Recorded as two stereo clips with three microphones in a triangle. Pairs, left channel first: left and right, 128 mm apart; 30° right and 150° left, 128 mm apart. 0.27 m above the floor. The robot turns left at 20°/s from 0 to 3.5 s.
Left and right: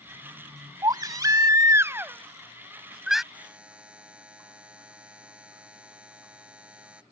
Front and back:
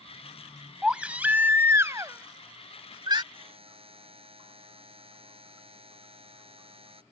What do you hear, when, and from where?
0.8 s a baby crying: 130° right; by 3.2 s 175° right
3.3 s a buzzer: 170° right